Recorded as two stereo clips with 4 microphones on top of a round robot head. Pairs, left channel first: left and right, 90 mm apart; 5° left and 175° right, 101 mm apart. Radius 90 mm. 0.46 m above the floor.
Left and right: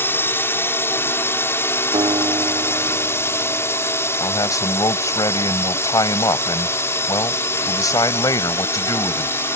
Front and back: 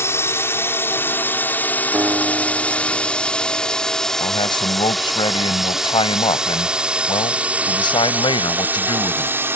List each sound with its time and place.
0.0 s a drone: 45° left; by 9.6 s 135° left
1.9 s a guitar: 105° right
4.2 s a man speaking: 45° left